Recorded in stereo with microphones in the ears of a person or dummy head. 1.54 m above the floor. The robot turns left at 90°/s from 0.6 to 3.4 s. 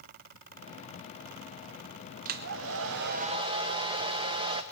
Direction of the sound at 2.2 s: 50° right.